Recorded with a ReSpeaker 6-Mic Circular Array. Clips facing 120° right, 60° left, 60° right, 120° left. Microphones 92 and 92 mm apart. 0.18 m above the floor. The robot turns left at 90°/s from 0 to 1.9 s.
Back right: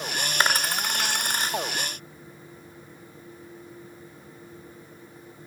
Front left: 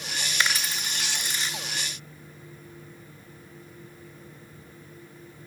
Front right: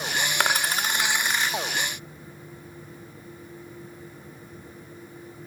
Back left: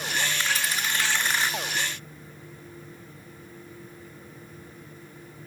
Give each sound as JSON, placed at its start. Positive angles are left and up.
{"t": 0.4, "sound": "a dropped coin", "azimuth_deg": -70, "distance_m": 0.5}